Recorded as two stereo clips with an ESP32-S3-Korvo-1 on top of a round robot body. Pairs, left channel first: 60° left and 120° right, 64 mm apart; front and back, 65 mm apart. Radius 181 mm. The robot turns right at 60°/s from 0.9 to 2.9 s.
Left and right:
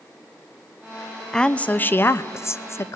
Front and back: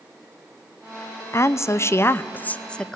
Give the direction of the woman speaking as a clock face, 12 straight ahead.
1 o'clock.